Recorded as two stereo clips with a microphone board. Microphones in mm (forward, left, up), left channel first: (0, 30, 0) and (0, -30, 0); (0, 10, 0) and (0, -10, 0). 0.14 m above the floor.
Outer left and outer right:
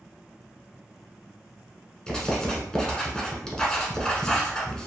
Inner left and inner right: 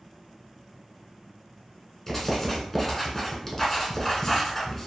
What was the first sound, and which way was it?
Writing, 15° left (ahead or behind).